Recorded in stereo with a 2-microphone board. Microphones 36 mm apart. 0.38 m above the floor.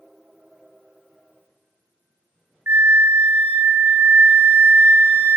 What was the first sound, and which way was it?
A flute, 80° right.